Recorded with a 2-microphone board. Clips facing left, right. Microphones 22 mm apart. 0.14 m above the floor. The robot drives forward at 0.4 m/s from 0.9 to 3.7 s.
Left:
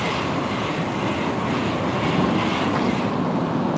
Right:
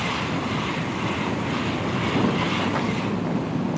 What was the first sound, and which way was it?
An aircraft, 35° left (ahead or behind).